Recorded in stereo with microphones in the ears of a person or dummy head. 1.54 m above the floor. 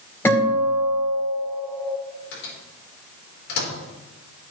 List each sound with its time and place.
0.2 s a guitar: 15° left (ahead or behind), 4.5 m
2.3 s a microwave: 65° left (ahead or behind), 4.5 m